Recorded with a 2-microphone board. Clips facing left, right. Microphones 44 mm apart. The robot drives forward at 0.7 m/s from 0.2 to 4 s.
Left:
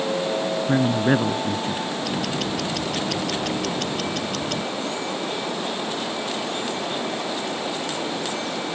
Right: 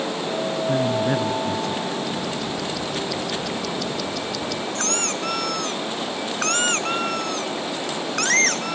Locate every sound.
0.7 s a man speaking: 30° left (ahead or behind); by 1.9 s 25° left (ahead or behind)
2.0 s ticking: 65° left (ahead or behind); by 4.7 s 50° left (ahead or behind)
4.8 s a squeak: 85° right